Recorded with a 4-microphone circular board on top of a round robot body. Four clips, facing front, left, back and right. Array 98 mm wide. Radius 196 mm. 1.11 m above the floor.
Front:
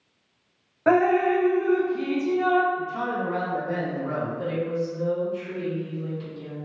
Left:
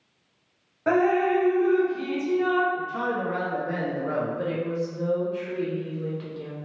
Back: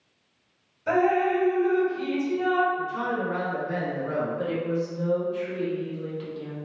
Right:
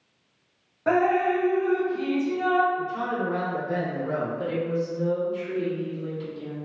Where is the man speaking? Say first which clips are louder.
Even, even; 80° left, 1.0 m.